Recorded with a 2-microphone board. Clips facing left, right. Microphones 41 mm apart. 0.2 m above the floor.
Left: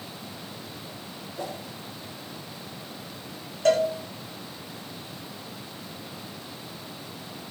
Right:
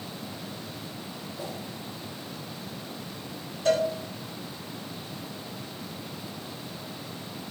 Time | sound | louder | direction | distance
1.4 | a whoosh | left 4 dB | 60° left (ahead or behind) | 7 m
3.6 | a cowbell | left 3 dB | 65° left (ahead or behind) | 7.5 m